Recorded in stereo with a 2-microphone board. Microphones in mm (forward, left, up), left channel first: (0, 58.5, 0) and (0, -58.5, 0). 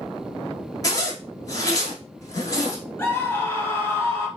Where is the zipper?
30° left (ahead or behind), 1.0 m.